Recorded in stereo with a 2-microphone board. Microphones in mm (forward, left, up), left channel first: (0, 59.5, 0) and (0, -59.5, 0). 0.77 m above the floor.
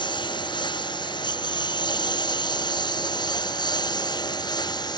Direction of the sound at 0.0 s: 40° left (ahead or behind).